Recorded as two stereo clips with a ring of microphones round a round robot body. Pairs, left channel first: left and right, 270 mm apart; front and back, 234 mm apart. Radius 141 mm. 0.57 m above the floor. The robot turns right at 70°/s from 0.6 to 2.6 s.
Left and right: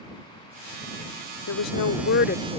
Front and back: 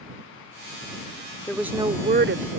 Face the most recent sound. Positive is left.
turn(degrees=165)